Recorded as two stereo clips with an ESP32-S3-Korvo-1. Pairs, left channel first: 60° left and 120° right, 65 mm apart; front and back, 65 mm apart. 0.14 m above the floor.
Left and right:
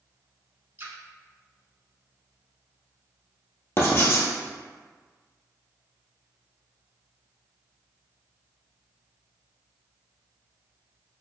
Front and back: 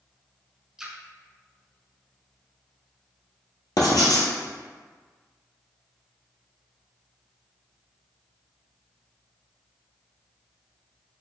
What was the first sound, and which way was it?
A splash, 100° right.